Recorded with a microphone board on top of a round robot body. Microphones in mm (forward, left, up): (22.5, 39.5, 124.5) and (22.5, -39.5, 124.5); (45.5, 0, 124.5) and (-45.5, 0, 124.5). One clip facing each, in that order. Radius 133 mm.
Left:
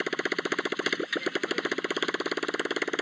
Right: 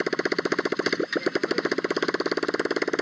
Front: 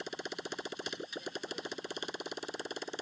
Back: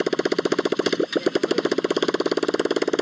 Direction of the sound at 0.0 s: 170° right.